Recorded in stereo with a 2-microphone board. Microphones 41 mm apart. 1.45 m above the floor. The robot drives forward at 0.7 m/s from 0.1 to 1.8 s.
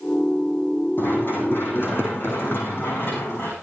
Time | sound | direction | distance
1.0 | running footsteps | 65° left (ahead or behind) | 4 m